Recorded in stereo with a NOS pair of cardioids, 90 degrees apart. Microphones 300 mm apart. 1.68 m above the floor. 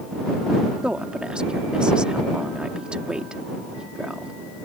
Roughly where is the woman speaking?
Ahead.